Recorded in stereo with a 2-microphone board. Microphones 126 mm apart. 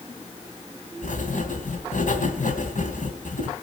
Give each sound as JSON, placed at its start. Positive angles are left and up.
{"t": 1.0, "sound": "writing", "side_deg": 80, "distance_m": 3.0}